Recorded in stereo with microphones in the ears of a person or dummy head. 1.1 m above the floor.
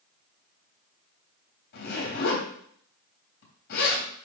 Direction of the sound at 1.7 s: 60° left (ahead or behind).